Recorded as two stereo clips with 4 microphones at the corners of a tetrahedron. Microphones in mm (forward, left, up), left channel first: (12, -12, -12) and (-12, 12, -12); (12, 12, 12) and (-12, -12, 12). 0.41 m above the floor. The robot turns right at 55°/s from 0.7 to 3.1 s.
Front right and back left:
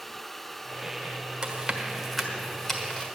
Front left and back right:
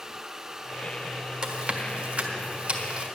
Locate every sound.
1.4 s chewing: 175° left, 1.4 m; by 3.1 s 90° right, 1.4 m